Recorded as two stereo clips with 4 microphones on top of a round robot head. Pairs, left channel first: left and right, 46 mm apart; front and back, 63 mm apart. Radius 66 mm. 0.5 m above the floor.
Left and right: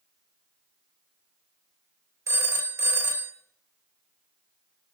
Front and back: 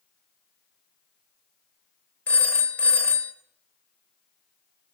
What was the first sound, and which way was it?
A phone ringing, 65° right.